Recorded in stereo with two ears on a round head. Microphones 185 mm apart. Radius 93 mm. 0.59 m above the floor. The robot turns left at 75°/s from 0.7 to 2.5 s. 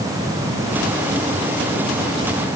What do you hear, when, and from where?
Only background noise.